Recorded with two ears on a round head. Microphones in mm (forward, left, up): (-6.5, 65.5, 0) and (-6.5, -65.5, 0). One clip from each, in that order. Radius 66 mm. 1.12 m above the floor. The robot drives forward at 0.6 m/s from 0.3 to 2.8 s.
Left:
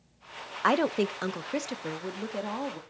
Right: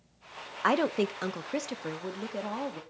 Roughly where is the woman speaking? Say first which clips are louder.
Left 1 dB; centre.